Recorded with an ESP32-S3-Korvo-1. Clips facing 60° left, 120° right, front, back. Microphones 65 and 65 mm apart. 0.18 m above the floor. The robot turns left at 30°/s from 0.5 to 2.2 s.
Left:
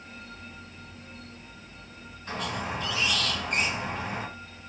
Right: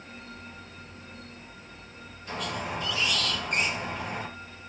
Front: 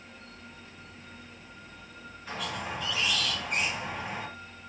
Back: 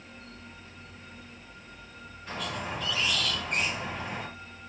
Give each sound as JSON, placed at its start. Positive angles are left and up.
{"t": 2.3, "sound": "a squeak", "azimuth_deg": 75, "distance_m": 1.5}